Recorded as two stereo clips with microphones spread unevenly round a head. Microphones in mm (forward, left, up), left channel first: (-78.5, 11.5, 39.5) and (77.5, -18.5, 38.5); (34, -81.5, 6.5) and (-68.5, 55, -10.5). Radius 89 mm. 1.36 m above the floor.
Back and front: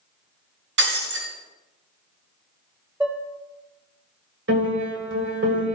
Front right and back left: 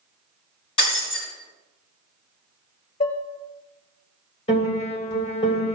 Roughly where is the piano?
Ahead.